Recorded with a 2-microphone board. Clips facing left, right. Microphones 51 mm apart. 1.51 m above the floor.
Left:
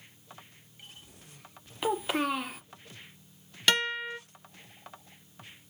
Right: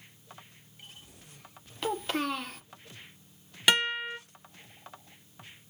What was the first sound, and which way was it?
A child speaking, 10° left (ahead or behind).